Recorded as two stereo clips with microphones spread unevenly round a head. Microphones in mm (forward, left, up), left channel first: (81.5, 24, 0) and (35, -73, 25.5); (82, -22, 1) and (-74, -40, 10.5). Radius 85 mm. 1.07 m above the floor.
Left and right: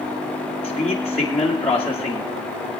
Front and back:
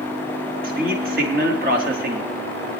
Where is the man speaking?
145° left, 2.5 m.